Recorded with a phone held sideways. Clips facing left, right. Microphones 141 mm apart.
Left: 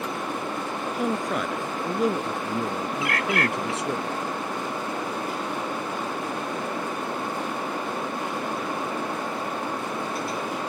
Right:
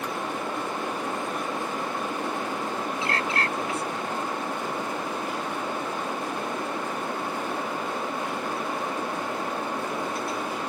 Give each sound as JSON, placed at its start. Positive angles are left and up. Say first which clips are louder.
{"t": 0.9, "sound": "a man speaking", "louder": "left 4 dB", "side_deg": 80}
{"t": 3.0, "sound": "a bird", "louder": "left 4 dB", "side_deg": -25}